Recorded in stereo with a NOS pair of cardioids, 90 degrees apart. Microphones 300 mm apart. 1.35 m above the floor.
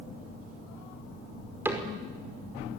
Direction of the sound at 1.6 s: 5° right.